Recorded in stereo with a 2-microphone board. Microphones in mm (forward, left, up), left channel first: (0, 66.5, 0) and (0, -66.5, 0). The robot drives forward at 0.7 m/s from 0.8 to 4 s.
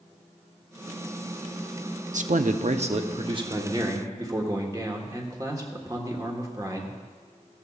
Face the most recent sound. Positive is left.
turn(degrees=-25)  # may be behind; listen again after turning